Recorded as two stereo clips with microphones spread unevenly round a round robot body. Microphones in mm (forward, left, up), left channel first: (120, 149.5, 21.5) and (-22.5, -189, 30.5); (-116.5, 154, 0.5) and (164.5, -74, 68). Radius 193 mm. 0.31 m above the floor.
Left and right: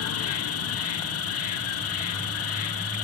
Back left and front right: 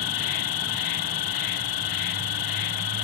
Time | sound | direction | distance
0.0 | an insect | 120° left | 1.0 m